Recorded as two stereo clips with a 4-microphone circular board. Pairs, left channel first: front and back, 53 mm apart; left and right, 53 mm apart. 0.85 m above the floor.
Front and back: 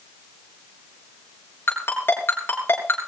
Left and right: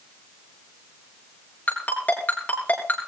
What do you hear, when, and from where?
1.7 s a ringtone: 35° left, 6.5 m